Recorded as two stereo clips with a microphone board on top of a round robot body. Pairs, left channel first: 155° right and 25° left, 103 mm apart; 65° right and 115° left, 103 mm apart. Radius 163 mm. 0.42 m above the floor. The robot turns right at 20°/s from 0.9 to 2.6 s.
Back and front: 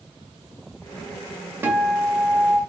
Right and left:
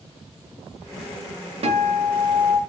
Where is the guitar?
95° left, 2.5 m; by 2.6 s 115° left, 2.5 m.